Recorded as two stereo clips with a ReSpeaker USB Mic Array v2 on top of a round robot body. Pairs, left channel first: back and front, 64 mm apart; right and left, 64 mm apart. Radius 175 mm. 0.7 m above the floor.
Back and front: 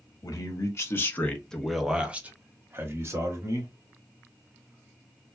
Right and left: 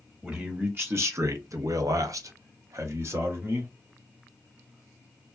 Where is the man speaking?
155° left, 1.2 m; by 3.7 s 40° left, 1.7 m.